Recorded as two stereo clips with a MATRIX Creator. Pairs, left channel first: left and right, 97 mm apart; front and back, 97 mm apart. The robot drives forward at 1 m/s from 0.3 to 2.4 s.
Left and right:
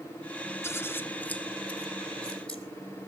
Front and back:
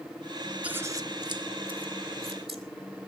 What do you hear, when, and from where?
0.6 s scissors: 115° left, 0.7 m; by 2.6 s 170° left, 2 m